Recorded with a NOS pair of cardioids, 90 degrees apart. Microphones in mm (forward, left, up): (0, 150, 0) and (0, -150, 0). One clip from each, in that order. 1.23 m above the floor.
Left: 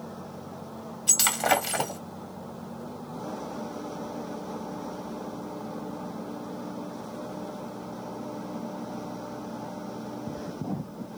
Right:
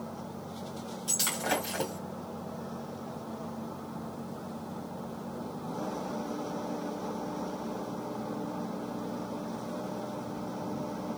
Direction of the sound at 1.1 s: 55° left.